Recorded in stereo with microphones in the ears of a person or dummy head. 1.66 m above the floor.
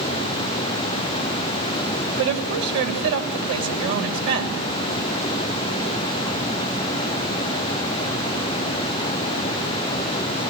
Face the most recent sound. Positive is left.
turn(degrees=-65)  # may be behind; listen again after turning